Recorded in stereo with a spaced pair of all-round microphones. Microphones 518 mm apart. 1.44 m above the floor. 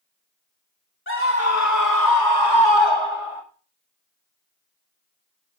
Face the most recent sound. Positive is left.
turn(degrees=75)  # may be behind; listen again after turning